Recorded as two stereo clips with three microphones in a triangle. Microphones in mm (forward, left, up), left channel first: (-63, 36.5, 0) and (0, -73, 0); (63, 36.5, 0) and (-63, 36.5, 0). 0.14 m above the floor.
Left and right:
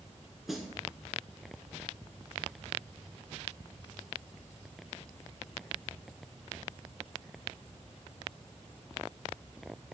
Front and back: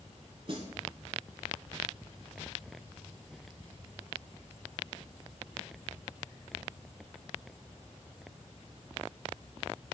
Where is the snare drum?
150° right, 0.6 m.